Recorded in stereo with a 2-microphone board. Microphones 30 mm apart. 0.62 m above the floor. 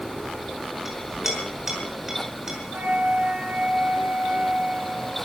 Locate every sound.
0.8 s a clink: 10° right (ahead or behind), 5 m
2.7 s a flute: 80° right, 5.5 m